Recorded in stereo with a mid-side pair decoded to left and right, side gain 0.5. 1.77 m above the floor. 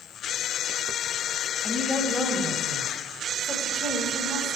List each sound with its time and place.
1.6 s a woman speaking: 10° left, 1.9 m; by 4.6 s 45° right, 1.9 m